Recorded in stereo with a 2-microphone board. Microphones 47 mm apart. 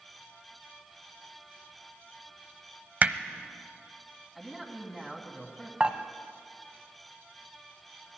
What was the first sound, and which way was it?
Hammering, 35° right (ahead or behind).